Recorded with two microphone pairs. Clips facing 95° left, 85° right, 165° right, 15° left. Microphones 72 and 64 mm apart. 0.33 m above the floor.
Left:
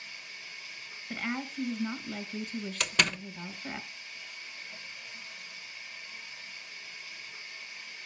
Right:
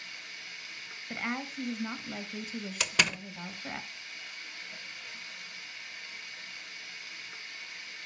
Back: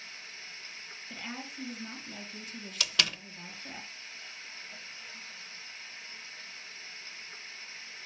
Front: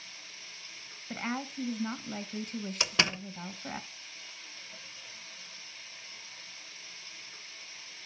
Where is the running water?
110° right, 4 m.